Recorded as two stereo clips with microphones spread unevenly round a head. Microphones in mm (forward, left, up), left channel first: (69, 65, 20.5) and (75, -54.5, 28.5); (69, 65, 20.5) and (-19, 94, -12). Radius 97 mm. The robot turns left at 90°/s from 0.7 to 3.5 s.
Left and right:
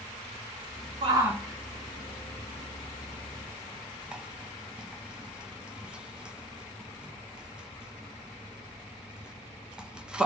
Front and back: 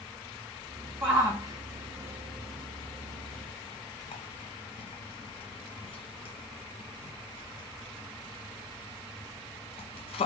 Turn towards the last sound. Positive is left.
turn(degrees=-5)